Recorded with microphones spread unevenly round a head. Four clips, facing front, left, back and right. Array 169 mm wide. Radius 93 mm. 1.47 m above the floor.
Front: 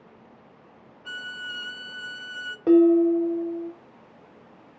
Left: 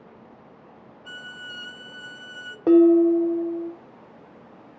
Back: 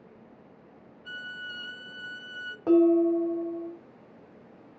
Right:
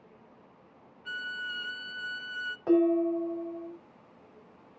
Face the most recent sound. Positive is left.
turn(degrees=85)